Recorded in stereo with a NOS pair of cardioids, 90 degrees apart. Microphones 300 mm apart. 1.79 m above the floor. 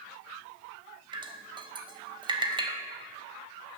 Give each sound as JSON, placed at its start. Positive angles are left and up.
{"t": 1.1, "sound": "dripping", "azimuth_deg": -15, "distance_m": 1.9}